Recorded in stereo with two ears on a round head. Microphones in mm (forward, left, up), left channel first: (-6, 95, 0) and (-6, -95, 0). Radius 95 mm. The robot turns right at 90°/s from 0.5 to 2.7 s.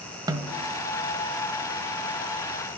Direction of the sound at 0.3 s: 20° right (ahead or behind).